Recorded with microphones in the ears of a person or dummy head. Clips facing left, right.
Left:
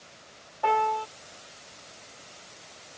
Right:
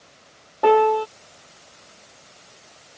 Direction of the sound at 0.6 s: 70° right (ahead or behind).